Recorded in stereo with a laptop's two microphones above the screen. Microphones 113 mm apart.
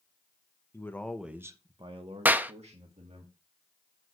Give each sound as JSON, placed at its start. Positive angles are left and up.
{"t": 0.7, "sound": "a man speaking", "side_deg": 25, "distance_m": 1.0}
{"t": 2.2, "sound": "a clap", "side_deg": -15, "distance_m": 0.8}